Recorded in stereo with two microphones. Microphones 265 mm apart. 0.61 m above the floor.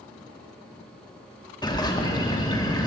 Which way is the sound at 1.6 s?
15° left (ahead or behind).